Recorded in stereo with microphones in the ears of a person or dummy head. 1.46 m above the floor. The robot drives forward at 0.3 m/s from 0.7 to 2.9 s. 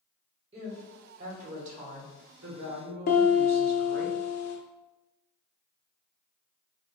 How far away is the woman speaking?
About 1.5 m.